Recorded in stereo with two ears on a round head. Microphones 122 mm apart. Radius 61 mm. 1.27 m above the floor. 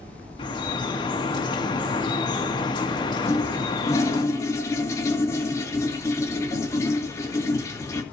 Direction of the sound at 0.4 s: 35° left (ahead or behind).